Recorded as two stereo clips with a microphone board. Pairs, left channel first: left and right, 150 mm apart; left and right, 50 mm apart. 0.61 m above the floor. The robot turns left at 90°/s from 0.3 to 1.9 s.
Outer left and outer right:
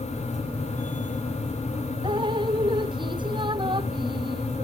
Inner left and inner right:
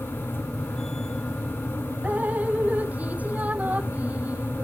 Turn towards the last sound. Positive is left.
turn(degrees=-30)  # may be behind; listen again after turning